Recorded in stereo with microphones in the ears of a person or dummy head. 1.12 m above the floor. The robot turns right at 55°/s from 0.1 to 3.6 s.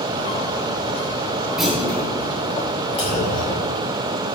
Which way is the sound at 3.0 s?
30° left.